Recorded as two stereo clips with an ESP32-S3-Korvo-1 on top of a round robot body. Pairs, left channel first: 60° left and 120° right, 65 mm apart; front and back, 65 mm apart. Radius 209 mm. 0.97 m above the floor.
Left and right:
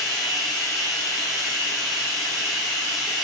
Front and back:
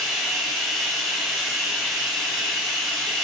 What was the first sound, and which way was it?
Running water, 90° left.